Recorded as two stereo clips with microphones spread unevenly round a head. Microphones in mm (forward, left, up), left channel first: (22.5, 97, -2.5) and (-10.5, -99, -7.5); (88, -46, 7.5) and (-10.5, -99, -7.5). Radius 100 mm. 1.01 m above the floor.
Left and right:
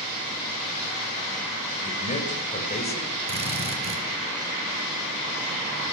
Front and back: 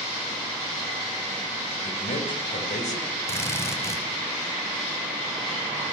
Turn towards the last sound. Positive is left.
turn(degrees=-40)